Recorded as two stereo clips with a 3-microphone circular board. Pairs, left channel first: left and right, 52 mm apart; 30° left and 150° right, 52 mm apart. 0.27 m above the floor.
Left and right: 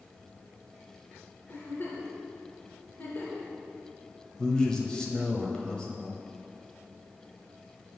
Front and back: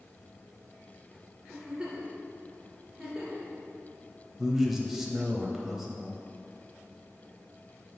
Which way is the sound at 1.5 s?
140° left.